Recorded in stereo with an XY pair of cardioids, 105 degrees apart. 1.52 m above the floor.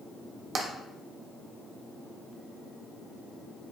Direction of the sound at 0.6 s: 45° right.